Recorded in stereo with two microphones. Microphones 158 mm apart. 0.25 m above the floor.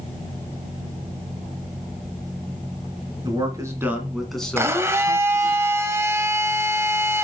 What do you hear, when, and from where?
3.2 s a man speaking: 25° right (ahead or behind), 2.5 m; by 5.6 s 35° left (ahead or behind), 2.5 m
4.6 s a blender: 15° right (ahead or behind), 0.9 m